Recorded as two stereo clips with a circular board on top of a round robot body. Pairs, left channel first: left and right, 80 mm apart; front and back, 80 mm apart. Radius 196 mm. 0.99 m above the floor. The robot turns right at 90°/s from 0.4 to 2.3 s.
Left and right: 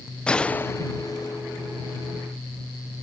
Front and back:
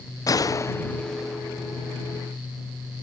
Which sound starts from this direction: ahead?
A gunshot, at 0.3 s.